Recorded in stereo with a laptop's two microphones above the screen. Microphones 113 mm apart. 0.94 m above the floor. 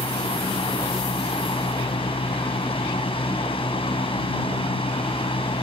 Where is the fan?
55° left (ahead or behind).